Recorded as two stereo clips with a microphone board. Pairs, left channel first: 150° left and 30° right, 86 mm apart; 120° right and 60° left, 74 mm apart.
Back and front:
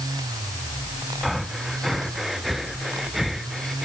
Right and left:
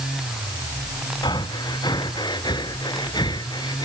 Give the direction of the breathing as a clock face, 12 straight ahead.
4 o'clock.